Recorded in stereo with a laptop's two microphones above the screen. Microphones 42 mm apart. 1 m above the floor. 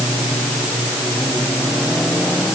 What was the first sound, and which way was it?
Only background noise.